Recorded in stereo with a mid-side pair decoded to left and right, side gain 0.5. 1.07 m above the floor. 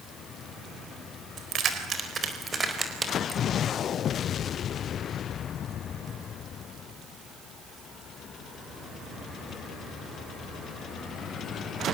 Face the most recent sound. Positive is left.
turn(degrees=-20)